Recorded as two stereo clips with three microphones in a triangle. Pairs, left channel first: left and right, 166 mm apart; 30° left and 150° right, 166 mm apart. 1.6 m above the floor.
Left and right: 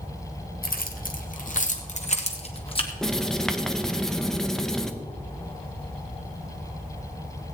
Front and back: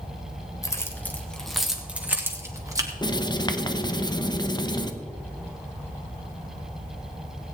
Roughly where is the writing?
Ahead.